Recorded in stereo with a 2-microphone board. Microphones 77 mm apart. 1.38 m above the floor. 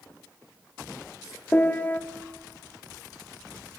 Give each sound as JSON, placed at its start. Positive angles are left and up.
{"t": 1.5, "sound": "a piano", "side_deg": 25, "distance_m": 1.5}